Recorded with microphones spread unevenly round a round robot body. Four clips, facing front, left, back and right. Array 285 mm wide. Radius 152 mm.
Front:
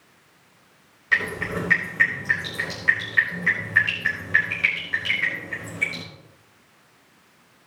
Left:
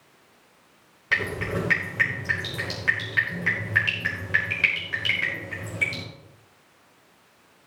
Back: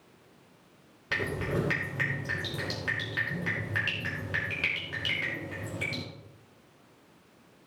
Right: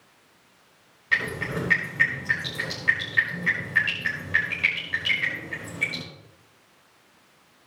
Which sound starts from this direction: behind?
Dripping, at 1.1 s.